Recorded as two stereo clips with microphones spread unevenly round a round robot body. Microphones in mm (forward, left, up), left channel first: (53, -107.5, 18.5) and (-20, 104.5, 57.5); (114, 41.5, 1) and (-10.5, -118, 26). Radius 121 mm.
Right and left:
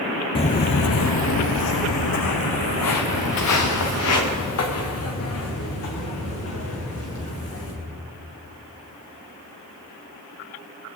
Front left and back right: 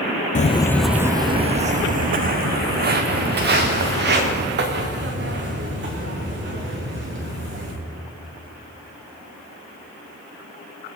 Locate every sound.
0.3 s footsteps: straight ahead, 0.6 m; by 7.7 s 100° right, 6 m